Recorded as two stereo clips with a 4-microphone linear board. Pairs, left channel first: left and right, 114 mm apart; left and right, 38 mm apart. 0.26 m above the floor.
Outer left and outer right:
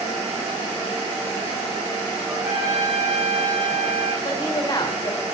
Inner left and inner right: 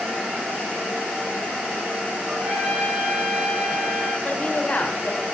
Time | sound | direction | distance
2.3 | a trumpet | 15° right (ahead or behind) | 5.5 m
4.2 | a woman speaking | 35° left (ahead or behind) | 1.7 m